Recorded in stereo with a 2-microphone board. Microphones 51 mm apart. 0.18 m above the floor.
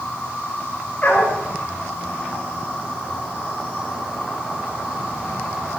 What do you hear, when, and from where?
0.0 s an insect: 20° left (ahead or behind), 6 m
1.0 s a dog barking: 30° left (ahead or behind), 7.5 m